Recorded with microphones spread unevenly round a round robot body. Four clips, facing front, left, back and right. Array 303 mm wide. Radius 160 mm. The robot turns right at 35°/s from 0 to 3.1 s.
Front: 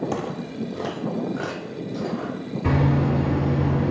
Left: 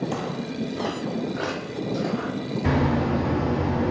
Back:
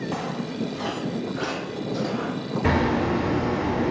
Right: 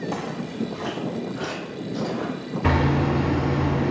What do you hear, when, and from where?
0.1 s footsteps: 25° left, 0.6 m; by 2.3 s 115° left, 1.9 m
2.6 s hammering: 105° right, 1.2 m; by 3.9 s 90° right, 1.2 m